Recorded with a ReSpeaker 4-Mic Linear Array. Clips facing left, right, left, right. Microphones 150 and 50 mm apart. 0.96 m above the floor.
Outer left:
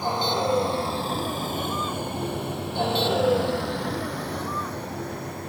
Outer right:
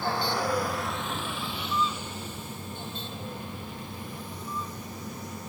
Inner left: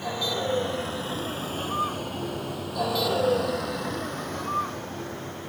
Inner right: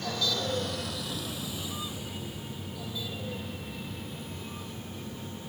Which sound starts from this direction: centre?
A vehicle, at 0.0 s.